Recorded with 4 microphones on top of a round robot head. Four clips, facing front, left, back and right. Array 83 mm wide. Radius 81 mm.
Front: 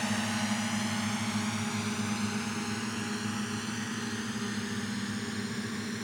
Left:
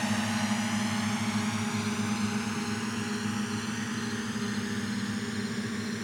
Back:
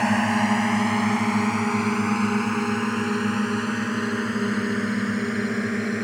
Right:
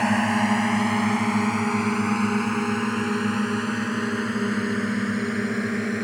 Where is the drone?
135° right.